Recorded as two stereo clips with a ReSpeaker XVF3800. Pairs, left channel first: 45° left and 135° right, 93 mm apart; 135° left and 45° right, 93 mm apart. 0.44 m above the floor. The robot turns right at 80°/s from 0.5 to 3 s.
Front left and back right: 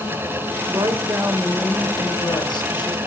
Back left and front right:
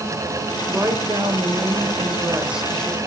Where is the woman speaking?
115° right, 1.5 m; by 3.0 s 70° left, 1.5 m.